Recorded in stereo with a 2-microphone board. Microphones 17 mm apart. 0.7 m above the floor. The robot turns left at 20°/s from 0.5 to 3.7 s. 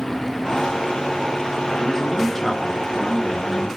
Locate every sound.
1.8 s a man speaking: 25° left (ahead or behind), 0.9 m; by 3.8 s 10° left (ahead or behind), 0.9 m